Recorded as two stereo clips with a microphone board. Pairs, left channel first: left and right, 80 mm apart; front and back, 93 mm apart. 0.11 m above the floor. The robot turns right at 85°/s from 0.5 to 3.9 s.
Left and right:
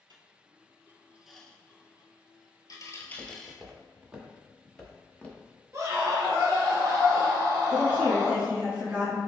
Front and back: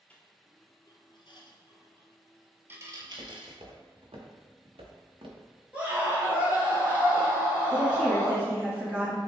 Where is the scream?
110° right, 1.8 m.